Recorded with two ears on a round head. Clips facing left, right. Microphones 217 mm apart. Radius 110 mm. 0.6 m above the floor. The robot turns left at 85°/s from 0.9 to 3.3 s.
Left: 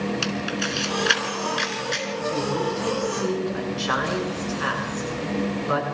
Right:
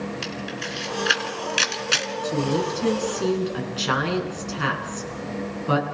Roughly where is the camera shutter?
Centre.